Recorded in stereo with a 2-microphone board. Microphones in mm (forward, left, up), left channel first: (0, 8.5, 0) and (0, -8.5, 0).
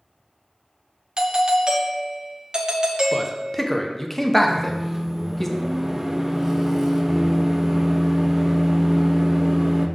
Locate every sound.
1.2 s a doorbell: 45° right (ahead or behind), 0.9 m
3.1 s a man speaking: 15° left (ahead or behind), 1.0 m
4.5 s a microwave: 20° right (ahead or behind), 0.8 m